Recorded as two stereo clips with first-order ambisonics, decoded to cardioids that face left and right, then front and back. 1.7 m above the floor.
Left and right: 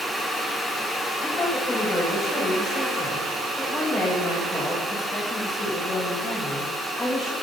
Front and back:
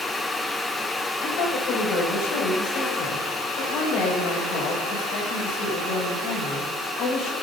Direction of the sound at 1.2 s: 10° left.